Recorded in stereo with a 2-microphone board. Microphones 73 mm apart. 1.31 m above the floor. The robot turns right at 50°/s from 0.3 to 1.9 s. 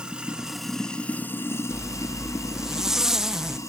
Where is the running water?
15° right, 0.8 m; by 3.7 s 65° left, 0.8 m.